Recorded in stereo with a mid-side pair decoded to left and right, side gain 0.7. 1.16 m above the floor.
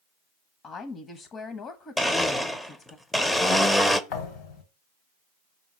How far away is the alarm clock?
No alarm clock in this recording.